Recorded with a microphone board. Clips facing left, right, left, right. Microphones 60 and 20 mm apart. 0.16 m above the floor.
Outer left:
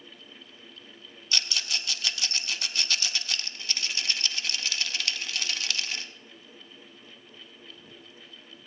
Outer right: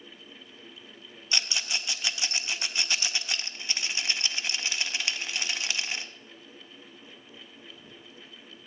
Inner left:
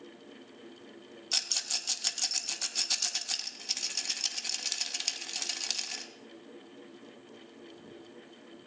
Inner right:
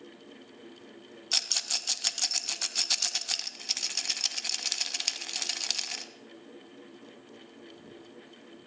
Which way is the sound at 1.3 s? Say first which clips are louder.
Even, inner right 3 dB; 20° right (ahead or behind).